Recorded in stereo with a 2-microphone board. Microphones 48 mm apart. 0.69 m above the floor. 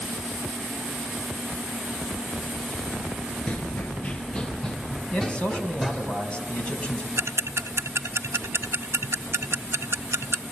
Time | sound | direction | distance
3.5 | running footsteps | 30° left (ahead or behind) | 0.7 m
5.1 | a man speaking | 20° left (ahead or behind) | 5 m
7.2 | ticking | 65° right (ahead or behind) | 0.6 m